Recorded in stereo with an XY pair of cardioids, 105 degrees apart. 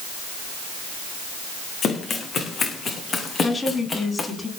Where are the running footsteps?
50° left, 6 m; by 4.3 s 40° left, 6.5 m.